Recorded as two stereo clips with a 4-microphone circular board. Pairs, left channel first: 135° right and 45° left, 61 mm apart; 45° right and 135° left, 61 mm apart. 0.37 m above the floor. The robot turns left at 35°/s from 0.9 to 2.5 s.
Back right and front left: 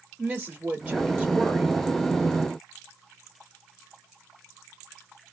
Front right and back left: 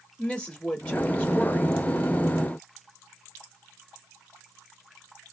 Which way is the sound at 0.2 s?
10° left.